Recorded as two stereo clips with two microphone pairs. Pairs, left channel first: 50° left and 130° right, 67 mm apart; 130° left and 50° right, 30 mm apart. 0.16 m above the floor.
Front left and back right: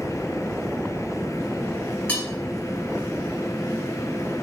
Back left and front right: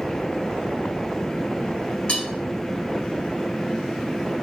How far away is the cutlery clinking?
About 0.8 m.